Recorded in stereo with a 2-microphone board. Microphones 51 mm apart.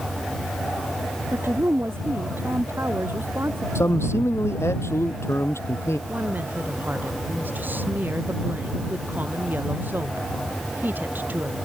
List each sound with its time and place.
1.3 s a woman speaking: 45° right (ahead or behind)
3.8 s a man speaking: 60° left (ahead or behind)
6.1 s a woman speaking: 40° right (ahead or behind)